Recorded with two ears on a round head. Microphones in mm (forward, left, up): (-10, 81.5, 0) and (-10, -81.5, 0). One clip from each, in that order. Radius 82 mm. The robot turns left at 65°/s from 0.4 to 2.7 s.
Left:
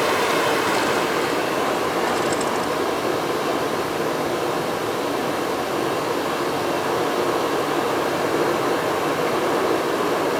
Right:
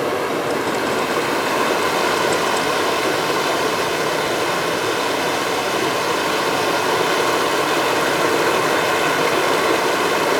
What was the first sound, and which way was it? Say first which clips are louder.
Running water: left 1 dB; 35° left.